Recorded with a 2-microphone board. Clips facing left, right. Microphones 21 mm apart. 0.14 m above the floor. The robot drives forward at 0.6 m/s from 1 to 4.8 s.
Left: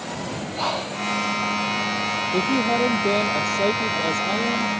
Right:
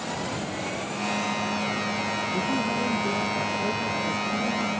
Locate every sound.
0.1 s breathing: 75° left (ahead or behind)
2.3 s a woman speaking: 70° left (ahead or behind); by 4.7 s 60° left (ahead or behind)